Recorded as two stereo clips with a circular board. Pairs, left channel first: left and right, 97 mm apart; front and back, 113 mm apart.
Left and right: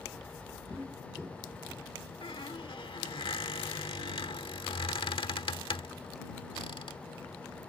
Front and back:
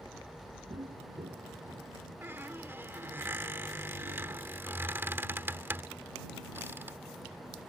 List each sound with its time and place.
0.7 s footsteps: 160° right; by 1.9 s 165° left
2.2 s a squeak: 110° left